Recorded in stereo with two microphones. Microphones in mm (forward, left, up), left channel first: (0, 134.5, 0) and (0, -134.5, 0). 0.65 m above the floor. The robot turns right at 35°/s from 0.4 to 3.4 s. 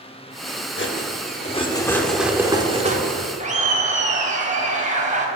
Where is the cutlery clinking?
130° left, 0.7 m; by 3.3 s 140° right, 0.7 m.